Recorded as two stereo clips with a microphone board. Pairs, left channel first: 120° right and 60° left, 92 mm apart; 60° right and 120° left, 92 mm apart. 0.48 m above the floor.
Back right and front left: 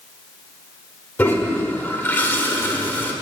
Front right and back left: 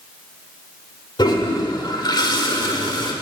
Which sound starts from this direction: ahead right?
A toilet flushing, at 1.2 s.